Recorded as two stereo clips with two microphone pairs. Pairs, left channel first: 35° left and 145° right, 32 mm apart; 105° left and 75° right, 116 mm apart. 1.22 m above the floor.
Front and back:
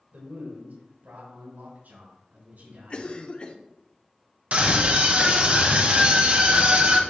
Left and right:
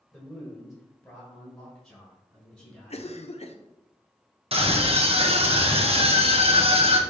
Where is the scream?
105° right, 1.4 m.